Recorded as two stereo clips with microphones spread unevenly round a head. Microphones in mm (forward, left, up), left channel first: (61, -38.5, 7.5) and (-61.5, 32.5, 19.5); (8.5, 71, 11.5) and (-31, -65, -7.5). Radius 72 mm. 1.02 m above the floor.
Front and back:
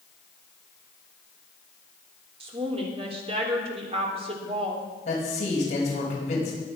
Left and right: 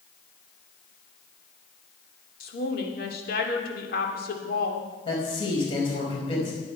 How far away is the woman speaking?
About 3 m.